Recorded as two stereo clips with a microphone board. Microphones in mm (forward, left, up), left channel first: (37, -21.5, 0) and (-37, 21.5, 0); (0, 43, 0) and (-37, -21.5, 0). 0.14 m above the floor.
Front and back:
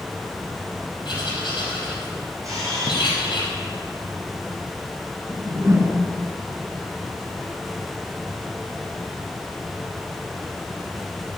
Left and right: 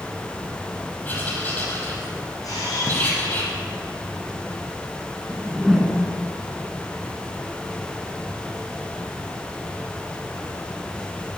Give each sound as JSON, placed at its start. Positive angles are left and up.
{"t": 1.1, "sound": "writing", "azimuth_deg": 0, "distance_m": 5.0}
{"t": 2.4, "sound": "a camera shutter", "azimuth_deg": 95, "distance_m": 6.0}
{"t": 5.3, "sound": "a whoosh", "azimuth_deg": 155, "distance_m": 1.9}